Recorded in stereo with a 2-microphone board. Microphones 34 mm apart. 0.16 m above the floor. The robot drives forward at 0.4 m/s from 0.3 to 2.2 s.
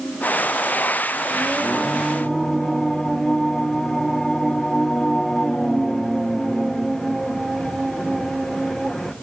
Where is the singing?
Centre (ahead or behind), 2.0 m.